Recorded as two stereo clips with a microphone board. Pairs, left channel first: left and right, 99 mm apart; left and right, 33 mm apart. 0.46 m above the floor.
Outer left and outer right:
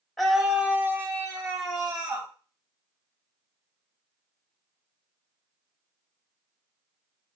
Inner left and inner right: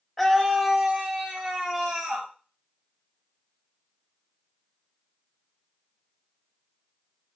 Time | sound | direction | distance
0.2 | a scream | centre (ahead or behind) | 1.0 m